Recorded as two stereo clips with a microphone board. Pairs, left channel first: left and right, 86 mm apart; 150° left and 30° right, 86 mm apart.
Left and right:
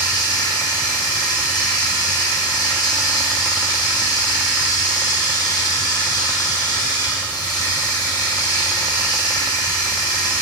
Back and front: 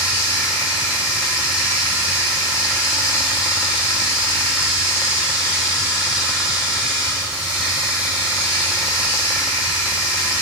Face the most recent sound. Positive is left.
turn(degrees=40)